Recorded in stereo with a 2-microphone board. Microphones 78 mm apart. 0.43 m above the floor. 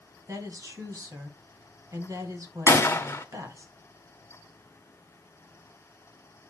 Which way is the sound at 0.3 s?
45° right (ahead or behind).